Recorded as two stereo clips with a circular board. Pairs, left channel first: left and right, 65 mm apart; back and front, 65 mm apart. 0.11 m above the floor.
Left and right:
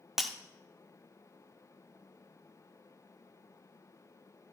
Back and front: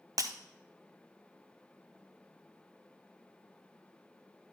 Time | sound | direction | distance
0.2 | breaking glass | 5° right | 1.0 m